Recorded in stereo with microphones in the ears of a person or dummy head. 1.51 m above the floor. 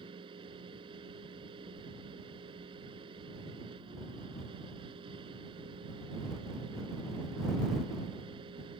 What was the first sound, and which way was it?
A fan, 30° right (ahead or behind).